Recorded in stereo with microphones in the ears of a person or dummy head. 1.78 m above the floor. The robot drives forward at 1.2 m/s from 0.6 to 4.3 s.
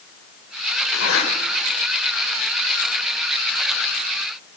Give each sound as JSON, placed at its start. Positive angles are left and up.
{"t": 0.9, "sound": "a zipper", "side_deg": 75, "distance_m": 6.0}